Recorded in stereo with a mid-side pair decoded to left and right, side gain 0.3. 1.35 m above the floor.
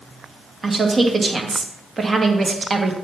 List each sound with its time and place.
0.6 s a woman speaking: 40° right, 1.5 m